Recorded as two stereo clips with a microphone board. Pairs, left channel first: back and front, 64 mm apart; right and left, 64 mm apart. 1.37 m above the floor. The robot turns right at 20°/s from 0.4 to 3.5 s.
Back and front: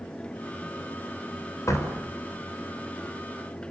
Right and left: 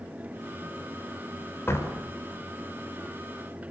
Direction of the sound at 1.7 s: 140° right.